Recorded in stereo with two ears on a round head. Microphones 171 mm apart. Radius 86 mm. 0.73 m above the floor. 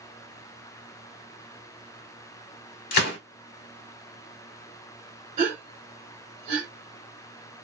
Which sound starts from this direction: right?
A gasp, at 5.4 s.